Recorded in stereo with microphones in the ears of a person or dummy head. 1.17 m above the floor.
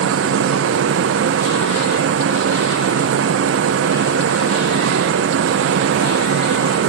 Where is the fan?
80° right, 0.7 m.